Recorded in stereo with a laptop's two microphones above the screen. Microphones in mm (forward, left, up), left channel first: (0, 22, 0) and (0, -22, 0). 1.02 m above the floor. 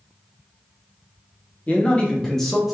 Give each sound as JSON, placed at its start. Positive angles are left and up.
{"t": 1.7, "sound": "a man speaking", "side_deg": 35, "distance_m": 0.9}